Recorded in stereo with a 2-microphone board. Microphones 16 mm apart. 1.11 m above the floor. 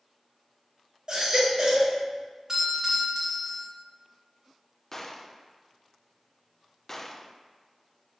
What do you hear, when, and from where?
1.1 s a baby crying: 55° right (ahead or behind), 2 m
2.5 s a doorbell: 30° right (ahead or behind), 2.5 m
4.9 s a gunshot: 25° left (ahead or behind), 0.5 m